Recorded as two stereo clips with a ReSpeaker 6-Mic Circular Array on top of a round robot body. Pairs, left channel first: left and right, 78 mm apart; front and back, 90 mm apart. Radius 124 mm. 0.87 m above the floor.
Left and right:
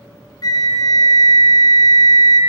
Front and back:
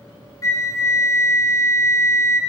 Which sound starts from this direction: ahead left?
A flute, at 0.4 s.